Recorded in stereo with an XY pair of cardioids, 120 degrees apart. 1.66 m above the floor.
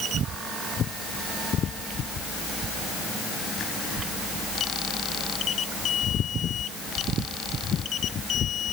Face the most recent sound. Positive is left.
No sound to turn to.